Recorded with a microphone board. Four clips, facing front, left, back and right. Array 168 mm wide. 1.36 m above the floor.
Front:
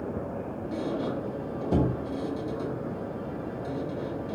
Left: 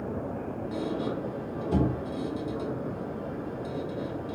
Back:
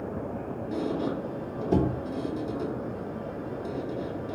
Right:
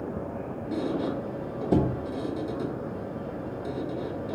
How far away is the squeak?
About 0.7 m.